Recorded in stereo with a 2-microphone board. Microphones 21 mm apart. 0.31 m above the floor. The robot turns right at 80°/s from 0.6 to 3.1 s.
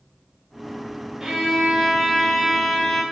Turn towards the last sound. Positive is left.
turn(degrees=55)